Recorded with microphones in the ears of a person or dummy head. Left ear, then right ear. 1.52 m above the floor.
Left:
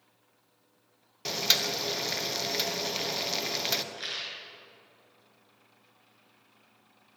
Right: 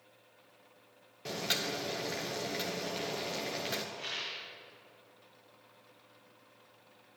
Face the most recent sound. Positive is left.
turn(degrees=75)  # may be behind; listen again after turning